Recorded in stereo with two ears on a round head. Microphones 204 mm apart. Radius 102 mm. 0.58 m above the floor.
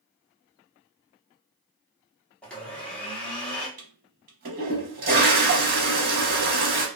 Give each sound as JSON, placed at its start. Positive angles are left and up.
{"t": 2.4, "sound": "a blender", "side_deg": 5, "distance_m": 0.8}
{"t": 3.8, "sound": "a toilet flushing", "side_deg": -40, "distance_m": 0.7}